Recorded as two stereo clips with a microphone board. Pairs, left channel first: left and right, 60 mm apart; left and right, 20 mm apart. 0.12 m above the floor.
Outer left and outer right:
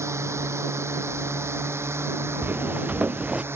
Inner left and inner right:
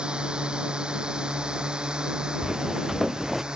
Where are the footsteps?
30° right (ahead or behind); by 3.4 s 20° right (ahead or behind).